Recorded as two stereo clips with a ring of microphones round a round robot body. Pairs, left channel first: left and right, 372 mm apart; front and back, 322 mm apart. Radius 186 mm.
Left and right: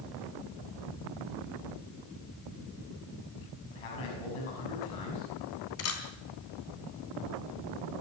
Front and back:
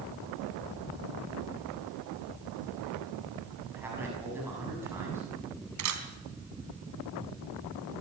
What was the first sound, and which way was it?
A man speaking, 95° left.